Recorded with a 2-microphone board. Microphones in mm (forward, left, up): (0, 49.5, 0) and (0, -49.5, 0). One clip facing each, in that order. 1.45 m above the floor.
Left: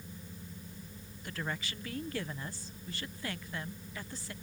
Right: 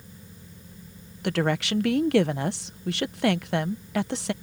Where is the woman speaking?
70° right (ahead or behind).